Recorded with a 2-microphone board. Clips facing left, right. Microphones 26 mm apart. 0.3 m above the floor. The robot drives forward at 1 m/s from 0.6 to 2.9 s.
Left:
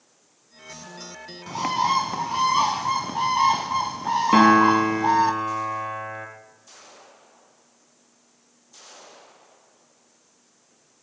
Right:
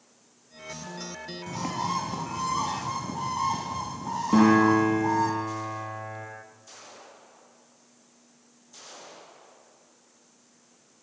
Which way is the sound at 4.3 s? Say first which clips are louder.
Left 4 dB; 75° left (ahead or behind).